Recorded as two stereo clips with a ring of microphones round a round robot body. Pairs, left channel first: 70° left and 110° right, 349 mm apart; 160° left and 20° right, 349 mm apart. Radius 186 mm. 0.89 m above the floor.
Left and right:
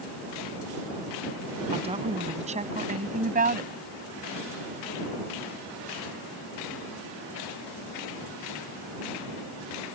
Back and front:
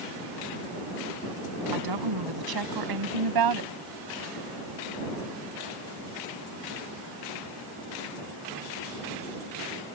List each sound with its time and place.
1.7 s a woman speaking: 40° right; by 3.7 s 50° right